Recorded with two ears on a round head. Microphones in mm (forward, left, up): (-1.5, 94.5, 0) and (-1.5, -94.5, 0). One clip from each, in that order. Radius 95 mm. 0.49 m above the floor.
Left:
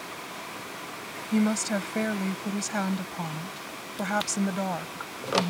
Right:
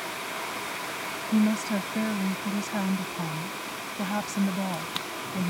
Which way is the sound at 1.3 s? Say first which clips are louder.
Left 1 dB; 45° left (ahead or behind).